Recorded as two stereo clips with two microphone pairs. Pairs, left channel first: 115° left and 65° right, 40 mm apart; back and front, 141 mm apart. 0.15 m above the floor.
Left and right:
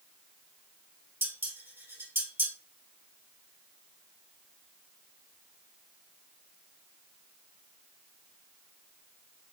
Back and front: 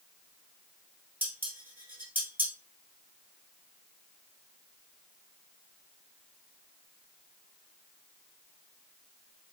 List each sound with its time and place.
1.2 s dishes clattering: 80° right, 2 m